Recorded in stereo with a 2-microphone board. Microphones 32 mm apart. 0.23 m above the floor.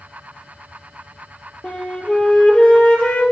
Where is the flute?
45° left (ahead or behind), 3 m.